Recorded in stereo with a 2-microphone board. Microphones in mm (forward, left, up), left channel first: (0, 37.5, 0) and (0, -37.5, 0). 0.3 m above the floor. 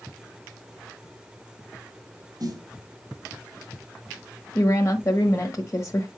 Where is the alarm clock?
No alarm clock in this recording.